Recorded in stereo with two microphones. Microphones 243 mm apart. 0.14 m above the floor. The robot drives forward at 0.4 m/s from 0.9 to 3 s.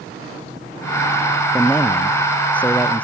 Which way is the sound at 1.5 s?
5° left (ahead or behind).